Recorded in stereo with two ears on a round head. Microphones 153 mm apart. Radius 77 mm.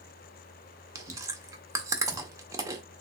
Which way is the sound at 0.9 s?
20° right (ahead or behind).